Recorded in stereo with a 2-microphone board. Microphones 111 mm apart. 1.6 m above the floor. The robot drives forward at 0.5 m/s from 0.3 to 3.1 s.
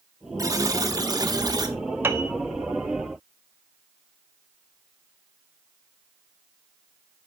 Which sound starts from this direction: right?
A buzzer, at 0.4 s.